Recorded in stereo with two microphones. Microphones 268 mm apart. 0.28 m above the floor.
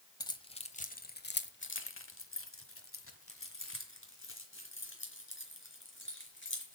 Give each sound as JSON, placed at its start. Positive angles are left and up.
{"t": 0.2, "sound": "keys jangling", "side_deg": 15, "distance_m": 1.1}